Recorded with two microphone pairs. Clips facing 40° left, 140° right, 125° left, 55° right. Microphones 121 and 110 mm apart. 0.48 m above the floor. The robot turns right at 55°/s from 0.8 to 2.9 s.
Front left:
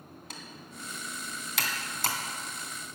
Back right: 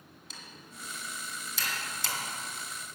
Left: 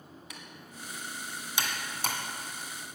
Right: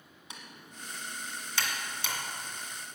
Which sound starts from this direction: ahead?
Typing on a keyboard, at 0.3 s.